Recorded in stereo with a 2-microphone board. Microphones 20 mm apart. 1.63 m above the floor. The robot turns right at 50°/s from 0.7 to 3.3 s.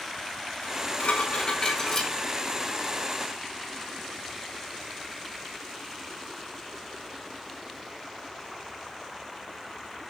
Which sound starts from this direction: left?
Dishes clattering, at 0.6 s.